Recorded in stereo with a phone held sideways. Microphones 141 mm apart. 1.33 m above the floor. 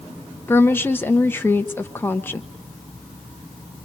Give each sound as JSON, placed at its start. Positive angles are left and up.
{"t": 0.5, "sound": "a woman speaking", "side_deg": 15, "distance_m": 1.1}